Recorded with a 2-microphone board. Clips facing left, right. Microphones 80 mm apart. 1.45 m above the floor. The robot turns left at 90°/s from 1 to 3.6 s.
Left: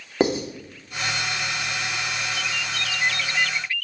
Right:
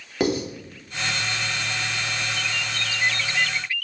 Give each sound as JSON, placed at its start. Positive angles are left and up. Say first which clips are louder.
{"t": 0.2, "sound": "writing", "louder": "left 2 dB", "side_deg": 30, "distance_m": 2.0}